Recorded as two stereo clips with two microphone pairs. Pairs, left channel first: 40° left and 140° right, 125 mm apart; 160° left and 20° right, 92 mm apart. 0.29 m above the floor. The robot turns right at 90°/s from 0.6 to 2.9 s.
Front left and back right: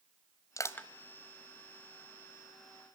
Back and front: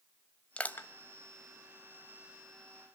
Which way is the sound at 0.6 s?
90° left.